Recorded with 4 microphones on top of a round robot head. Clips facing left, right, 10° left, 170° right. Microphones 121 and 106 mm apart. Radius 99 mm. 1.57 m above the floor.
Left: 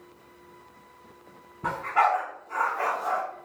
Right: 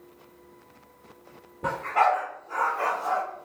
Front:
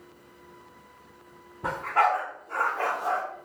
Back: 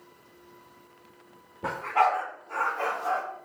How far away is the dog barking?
About 1.5 m.